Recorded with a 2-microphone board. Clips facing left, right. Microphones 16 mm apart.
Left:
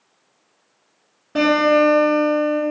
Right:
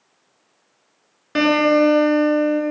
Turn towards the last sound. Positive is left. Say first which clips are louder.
# even
turn(degrees=-65)  # may be behind; listen again after turning